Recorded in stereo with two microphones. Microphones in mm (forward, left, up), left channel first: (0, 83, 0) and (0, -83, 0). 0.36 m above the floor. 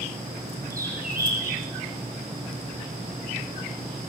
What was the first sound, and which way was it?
A bird, 55° right (ahead or behind).